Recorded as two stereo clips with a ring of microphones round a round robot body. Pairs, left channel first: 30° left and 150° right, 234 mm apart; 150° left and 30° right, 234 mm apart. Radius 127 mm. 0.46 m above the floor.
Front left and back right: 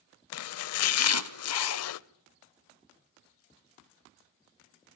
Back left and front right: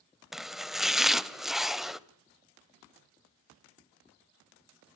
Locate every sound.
0.3 s chopping: 60° left, 0.5 m